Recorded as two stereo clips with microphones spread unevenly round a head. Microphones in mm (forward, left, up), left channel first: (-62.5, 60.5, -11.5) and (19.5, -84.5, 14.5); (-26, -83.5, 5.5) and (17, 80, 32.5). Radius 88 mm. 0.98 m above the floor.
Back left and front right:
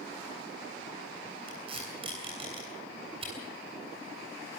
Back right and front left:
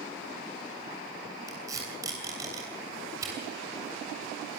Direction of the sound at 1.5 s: 5° left.